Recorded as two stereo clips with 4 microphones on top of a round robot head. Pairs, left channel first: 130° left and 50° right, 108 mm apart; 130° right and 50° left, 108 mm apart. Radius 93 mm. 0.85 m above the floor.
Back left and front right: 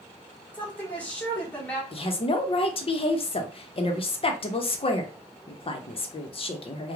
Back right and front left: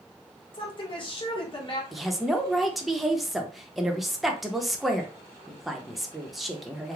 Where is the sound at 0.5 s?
155° right, 1.5 m.